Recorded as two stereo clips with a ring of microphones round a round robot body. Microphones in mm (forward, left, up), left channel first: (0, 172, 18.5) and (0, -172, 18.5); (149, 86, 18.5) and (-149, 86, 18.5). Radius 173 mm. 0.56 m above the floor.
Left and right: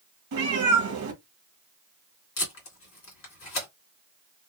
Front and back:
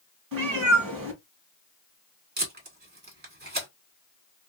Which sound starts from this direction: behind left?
Tape being pulled, at 2.4 s.